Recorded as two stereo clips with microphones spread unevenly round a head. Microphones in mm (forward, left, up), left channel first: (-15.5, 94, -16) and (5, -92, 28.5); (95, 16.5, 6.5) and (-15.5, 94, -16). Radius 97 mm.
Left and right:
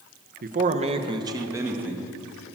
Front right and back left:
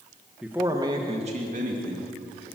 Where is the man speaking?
130° right, 1.5 m; by 2.6 s 170° right, 3.5 m.